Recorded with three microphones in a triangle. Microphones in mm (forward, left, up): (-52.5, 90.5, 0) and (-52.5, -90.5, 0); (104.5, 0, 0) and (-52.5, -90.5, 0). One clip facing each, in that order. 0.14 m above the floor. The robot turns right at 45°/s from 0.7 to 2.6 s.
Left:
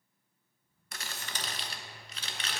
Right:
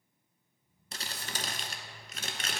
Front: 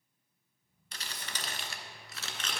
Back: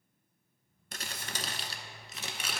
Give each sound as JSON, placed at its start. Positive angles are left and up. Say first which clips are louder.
{"t": 0.9, "sound": "crumpling", "louder": "right 2 dB, back 3 dB", "azimuth_deg": -140, "distance_m": 0.6}